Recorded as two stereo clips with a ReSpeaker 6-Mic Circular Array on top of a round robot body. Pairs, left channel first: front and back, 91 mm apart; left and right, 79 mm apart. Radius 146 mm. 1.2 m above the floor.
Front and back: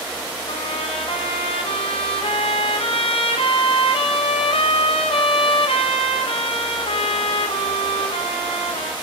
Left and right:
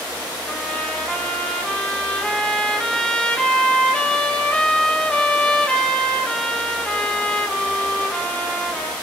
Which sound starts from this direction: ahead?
A trumpet, at 0.5 s.